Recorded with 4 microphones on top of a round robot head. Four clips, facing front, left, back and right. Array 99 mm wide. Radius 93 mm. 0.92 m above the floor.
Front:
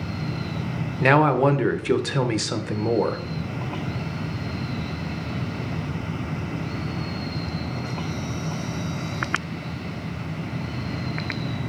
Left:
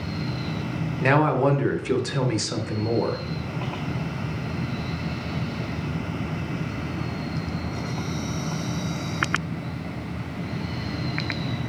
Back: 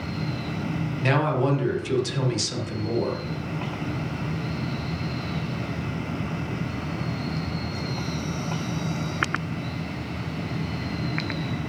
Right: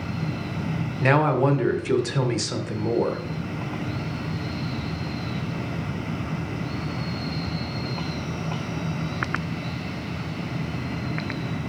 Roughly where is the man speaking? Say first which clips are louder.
Even, front 6 dB; ahead.